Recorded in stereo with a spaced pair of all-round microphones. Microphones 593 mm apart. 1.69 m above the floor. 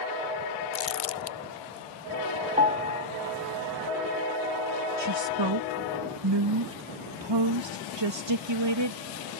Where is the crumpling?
65° left (ahead or behind).